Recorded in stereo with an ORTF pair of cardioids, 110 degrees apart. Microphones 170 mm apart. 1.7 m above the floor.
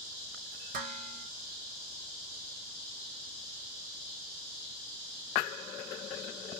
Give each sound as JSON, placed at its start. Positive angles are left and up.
{"t": 0.7, "sound": "dishes clattering", "azimuth_deg": -65, "distance_m": 3.0}